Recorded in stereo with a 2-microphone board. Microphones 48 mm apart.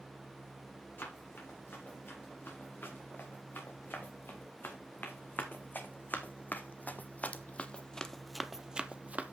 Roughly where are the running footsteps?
Left.